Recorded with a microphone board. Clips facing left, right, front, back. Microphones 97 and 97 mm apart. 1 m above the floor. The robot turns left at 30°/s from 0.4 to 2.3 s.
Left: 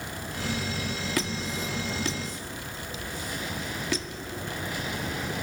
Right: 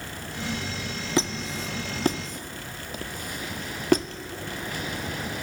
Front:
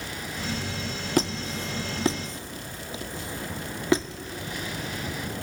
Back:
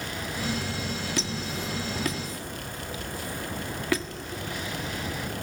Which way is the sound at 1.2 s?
25° right.